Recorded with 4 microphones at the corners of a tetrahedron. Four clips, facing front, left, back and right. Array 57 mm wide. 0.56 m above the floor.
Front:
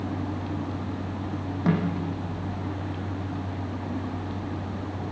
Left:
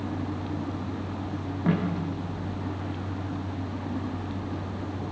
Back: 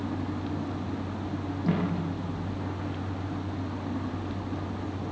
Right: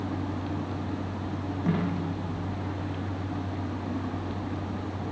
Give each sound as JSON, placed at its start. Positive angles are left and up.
{"t": 1.7, "sound": "a snare drum", "azimuth_deg": 20, "distance_m": 9.0}